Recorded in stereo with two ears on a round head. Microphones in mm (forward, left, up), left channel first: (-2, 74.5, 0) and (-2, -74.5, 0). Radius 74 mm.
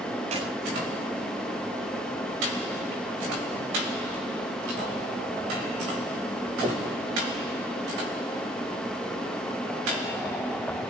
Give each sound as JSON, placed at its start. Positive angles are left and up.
{"t": 0.3, "sound": "a clap", "side_deg": -40, "distance_m": 8.0}